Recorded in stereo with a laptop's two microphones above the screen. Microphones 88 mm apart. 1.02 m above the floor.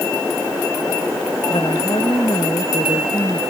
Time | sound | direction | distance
1.5 | a woman speaking | 70° left (ahead or behind) | ?